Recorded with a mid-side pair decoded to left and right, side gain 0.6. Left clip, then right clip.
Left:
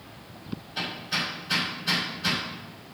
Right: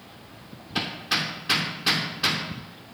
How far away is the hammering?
About 3 m.